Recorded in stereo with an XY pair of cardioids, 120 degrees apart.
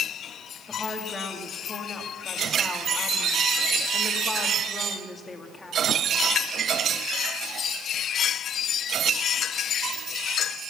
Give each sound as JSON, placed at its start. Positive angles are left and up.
{"t": 0.7, "sound": "a woman speaking", "azimuth_deg": 20, "distance_m": 2.0}